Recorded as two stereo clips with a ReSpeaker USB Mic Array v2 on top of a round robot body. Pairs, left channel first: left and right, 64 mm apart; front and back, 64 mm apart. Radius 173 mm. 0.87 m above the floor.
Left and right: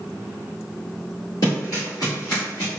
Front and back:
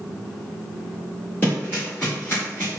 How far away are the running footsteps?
About 1.2 m.